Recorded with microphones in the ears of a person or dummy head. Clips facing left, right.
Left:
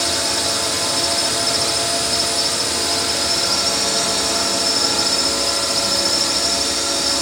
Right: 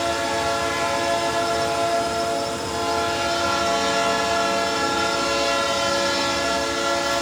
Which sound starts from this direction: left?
A drone, at 0.0 s.